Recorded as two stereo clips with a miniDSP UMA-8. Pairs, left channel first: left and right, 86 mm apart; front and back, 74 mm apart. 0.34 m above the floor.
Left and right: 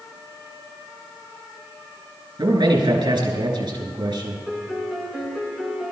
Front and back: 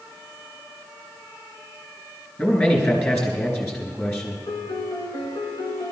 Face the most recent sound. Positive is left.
turn(degrees=5)